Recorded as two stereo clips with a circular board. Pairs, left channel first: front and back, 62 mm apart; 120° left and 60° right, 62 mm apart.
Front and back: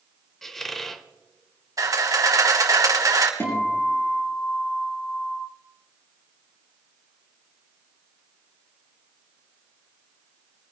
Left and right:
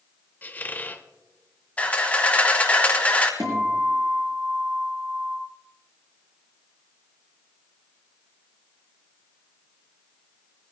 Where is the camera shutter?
175° right, 1.9 m.